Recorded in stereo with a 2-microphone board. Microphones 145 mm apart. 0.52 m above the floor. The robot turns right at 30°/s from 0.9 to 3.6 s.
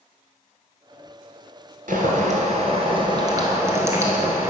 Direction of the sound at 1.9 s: 70° right.